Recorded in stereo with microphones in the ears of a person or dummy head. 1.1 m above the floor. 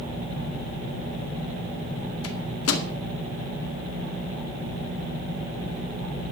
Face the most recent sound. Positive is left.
turn(degrees=80)